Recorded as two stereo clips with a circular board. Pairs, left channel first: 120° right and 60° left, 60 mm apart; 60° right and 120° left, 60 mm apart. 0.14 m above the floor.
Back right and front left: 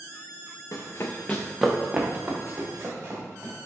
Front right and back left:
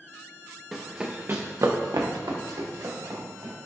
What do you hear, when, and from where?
0.7 s running footsteps: 150° right, 0.7 m; by 3.5 s 105° left, 2.0 m